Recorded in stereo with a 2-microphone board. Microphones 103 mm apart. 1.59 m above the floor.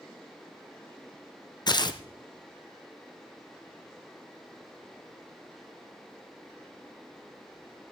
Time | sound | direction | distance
1.7 | tearing paper | 45° left (ahead or behind) | 0.7 m